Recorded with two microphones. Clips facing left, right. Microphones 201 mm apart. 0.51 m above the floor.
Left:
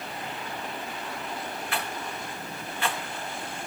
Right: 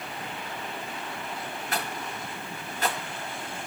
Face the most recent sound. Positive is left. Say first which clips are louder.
# right 2 dB
turn(degrees=-40)  # may be behind; listen again after turning